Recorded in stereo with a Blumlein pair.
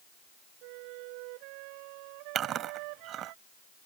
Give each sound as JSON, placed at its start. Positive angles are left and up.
{"t": 0.6, "sound": "a flute", "azimuth_deg": -45}
{"t": 2.4, "sound": "chewing", "azimuth_deg": -30}